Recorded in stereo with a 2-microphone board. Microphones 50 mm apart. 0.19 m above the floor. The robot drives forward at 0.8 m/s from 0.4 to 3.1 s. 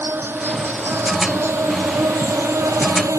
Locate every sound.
0.0 s an insect: 50° right (ahead or behind); by 3.2 s 80° right